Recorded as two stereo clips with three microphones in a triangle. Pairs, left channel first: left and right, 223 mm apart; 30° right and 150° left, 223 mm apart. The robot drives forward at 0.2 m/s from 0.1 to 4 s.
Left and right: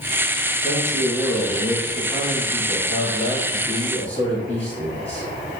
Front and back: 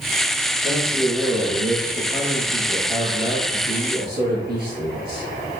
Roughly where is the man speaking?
Behind.